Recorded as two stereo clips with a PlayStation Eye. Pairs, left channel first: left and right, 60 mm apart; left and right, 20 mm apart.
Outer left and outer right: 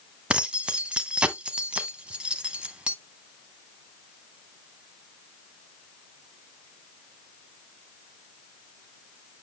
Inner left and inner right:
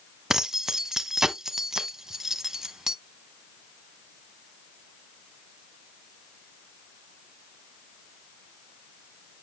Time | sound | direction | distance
0.3 | keys jangling | 20° right (ahead or behind) | 0.8 m